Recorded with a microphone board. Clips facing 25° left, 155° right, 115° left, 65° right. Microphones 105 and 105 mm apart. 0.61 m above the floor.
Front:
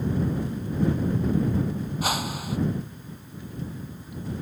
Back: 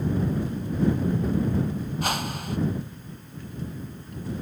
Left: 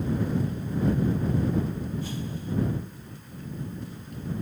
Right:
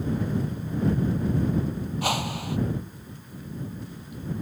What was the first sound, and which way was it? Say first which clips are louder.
A whoosh: front 1 dB, right 6 dB; 65° right.